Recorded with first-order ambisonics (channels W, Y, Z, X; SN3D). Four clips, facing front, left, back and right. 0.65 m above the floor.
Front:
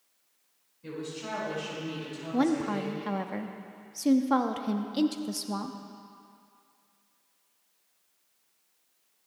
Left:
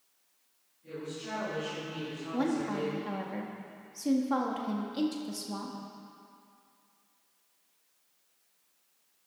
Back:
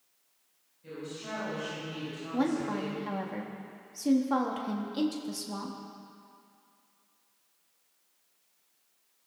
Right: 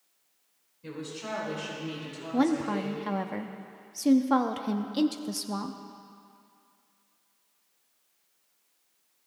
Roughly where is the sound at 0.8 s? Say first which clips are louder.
Right 2 dB, front 3 dB; ahead right.